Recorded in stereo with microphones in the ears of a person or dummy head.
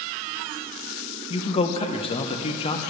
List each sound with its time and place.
1.3 s a man speaking: 25° left (ahead or behind), 0.8 m